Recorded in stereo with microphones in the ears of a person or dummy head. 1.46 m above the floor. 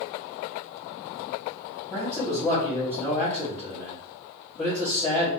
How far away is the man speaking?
About 1.4 m.